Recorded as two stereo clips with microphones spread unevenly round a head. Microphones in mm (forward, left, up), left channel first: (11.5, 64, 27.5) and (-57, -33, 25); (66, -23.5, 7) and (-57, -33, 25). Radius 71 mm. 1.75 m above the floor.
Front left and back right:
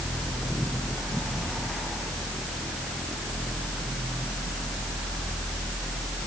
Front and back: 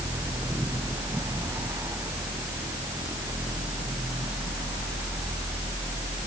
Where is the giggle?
No giggle in this recording.